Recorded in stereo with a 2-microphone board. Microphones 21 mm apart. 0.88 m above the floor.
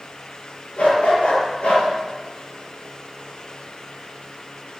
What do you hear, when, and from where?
0.8 s a dog barking: 80° left, 7.5 m